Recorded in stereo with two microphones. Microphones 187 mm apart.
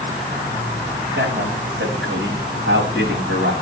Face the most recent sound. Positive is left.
turn(degrees=-85)